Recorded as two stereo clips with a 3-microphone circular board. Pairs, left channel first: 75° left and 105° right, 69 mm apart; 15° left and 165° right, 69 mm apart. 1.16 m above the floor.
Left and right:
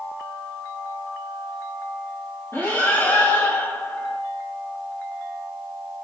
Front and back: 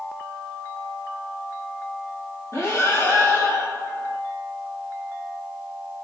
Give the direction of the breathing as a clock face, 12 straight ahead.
11 o'clock.